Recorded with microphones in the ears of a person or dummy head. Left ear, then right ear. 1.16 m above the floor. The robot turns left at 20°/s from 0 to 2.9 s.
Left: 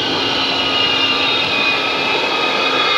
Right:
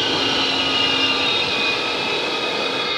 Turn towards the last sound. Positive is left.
turn(degrees=45)  # may be behind; listen again after turning